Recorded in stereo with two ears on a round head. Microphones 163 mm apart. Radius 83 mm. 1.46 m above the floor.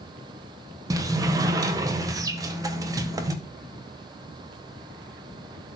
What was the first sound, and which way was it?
A sliding door, 20° right (ahead or behind).